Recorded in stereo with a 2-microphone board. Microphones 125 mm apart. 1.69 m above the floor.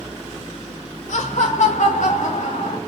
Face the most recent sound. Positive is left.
turn(degrees=75)  # may be behind; listen again after turning